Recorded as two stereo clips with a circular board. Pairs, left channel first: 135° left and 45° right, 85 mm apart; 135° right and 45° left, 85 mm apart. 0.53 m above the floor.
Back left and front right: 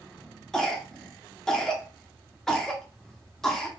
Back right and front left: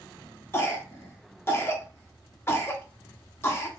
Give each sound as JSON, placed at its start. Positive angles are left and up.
{"t": 0.5, "sound": "a cough", "azimuth_deg": -145, "distance_m": 0.8}